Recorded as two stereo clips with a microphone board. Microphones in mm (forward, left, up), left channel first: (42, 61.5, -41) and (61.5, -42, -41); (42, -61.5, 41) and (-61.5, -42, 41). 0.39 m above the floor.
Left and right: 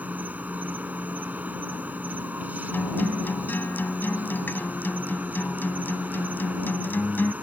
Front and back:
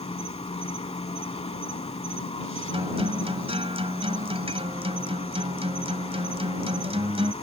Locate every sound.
0.0 s an insect: 5° right
2.7 s a guitar: 170° left